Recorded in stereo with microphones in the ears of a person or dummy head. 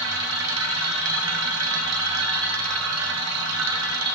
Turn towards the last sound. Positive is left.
turn(degrees=-75)  # may be behind; listen again after turning